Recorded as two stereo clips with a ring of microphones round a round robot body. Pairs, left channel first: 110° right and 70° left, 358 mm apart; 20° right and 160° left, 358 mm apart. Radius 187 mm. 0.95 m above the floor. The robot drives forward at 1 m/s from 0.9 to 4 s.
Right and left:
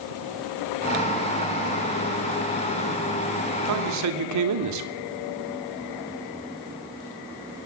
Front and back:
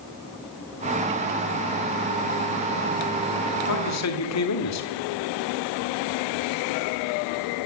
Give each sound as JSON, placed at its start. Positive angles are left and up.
{"t": 3.7, "sound": "a man speaking", "azimuth_deg": 20, "distance_m": 3.0}